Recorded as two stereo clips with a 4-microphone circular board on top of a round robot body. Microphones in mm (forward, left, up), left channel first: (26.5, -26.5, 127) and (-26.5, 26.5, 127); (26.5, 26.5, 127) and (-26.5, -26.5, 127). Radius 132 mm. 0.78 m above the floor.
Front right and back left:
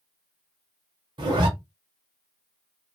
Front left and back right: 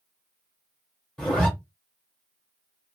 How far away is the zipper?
About 0.8 m.